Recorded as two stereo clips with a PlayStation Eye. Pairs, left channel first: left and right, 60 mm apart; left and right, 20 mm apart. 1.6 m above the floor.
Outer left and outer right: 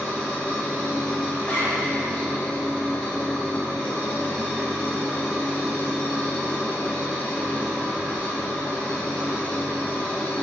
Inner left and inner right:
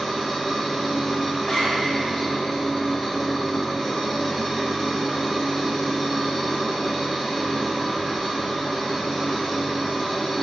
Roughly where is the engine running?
Centre.